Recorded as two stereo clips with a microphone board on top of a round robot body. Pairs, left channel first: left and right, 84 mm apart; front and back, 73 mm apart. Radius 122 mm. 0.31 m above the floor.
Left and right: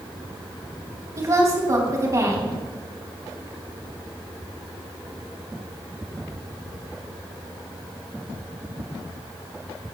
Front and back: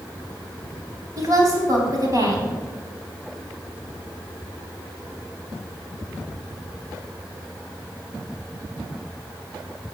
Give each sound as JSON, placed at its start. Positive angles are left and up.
{"t": 1.2, "sound": "a woman speaking", "azimuth_deg": -140, "distance_m": 4.0}